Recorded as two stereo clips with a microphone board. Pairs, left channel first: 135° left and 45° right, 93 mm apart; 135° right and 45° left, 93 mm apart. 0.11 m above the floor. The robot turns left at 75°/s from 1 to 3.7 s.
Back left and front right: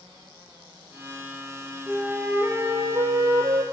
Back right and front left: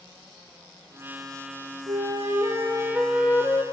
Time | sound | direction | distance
1.9 | a flute | 45° left | 0.6 m